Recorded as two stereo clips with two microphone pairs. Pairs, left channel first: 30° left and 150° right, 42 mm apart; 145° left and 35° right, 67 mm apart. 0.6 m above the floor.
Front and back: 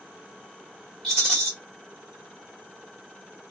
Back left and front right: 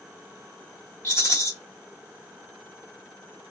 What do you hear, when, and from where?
1.0 s a rattle: 105° left, 1.4 m